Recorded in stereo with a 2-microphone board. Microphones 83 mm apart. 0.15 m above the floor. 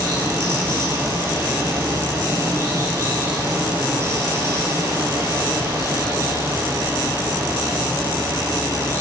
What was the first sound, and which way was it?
Running water, 35° right (ahead or behind).